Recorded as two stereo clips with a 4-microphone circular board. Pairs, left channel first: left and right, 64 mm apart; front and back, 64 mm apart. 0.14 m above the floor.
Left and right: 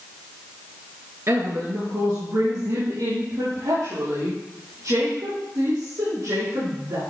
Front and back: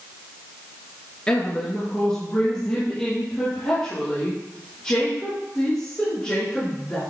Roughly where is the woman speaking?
Right.